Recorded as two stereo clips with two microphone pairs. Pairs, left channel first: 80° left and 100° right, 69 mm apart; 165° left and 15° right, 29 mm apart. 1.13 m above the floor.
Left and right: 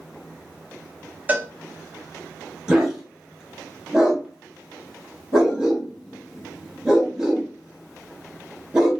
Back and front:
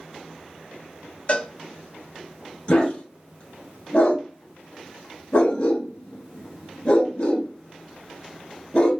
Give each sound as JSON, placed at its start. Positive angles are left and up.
{"t": 1.3, "sound": "a cowbell", "azimuth_deg": -160, "distance_m": 0.7}
{"t": 2.7, "sound": "a dog barking", "azimuth_deg": -175, "distance_m": 1.1}